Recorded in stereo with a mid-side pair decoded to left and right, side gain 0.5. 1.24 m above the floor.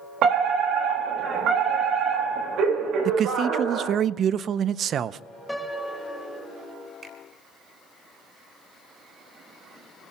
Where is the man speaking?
55° right, 0.6 m.